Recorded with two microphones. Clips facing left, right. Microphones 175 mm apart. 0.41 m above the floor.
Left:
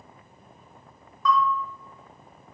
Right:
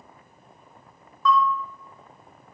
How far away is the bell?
About 1.5 m.